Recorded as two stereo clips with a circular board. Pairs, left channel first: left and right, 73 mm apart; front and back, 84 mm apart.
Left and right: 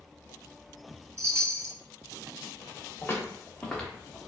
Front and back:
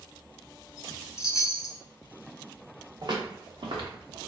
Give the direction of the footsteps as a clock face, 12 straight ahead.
7 o'clock.